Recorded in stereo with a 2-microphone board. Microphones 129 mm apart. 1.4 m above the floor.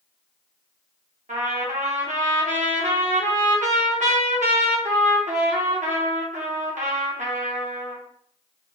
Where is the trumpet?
75° right (ahead or behind), 1.0 m.